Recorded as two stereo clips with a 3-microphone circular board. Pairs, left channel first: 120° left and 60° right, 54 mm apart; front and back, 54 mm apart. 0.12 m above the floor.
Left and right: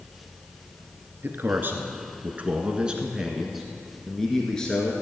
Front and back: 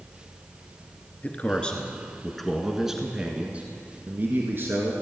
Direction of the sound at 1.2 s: 50° right.